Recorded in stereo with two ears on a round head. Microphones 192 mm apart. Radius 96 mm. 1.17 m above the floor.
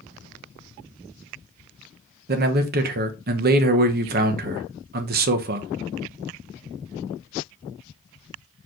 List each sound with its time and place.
2.3 s a man speaking: 45° right (ahead or behind), 0.8 m